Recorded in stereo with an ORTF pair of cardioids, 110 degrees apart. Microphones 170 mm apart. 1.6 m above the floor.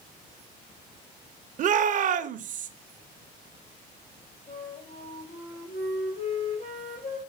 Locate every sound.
1.6 s a shout: 50° right, 0.8 m
4.5 s a flute: 40° left, 4.5 m